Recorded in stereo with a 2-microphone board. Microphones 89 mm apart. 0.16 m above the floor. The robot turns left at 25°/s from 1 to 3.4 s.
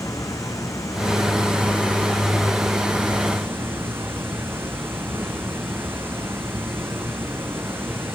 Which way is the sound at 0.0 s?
35° left.